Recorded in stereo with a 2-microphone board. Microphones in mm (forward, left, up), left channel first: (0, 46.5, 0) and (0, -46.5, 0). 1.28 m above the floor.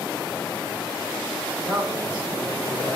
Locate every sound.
1.6 s a man speaking: 15° right (ahead or behind), 4.5 m